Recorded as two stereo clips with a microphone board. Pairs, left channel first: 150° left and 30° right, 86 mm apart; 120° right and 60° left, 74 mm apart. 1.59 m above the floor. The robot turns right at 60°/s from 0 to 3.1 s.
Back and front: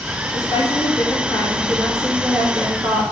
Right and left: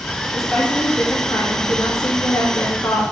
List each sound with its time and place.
0.3 s a woman speaking: 140° left, 3 m; by 3.0 s 60° right, 3 m